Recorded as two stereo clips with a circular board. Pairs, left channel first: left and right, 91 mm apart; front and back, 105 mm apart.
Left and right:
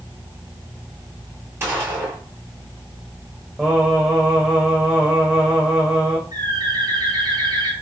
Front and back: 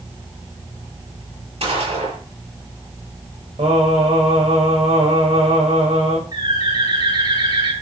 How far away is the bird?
About 6 m.